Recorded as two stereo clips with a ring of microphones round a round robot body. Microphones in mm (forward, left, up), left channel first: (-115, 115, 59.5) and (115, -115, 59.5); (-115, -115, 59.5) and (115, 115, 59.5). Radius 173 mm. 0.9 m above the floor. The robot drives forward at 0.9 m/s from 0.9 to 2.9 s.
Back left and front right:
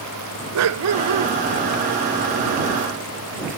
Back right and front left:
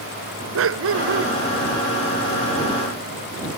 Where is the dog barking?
5° right.